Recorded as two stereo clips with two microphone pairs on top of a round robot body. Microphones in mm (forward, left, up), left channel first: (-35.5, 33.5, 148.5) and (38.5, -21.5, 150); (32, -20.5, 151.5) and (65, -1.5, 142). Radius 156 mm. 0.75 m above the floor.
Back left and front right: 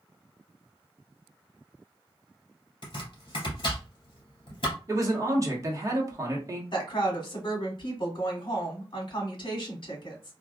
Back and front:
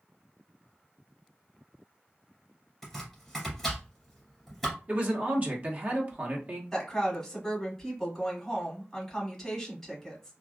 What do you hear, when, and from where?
2.8 s chopping: 120° left, 2.5 m
4.9 s a man speaking: 10° left, 1.3 m
6.7 s a woman speaking: 120° left, 1.8 m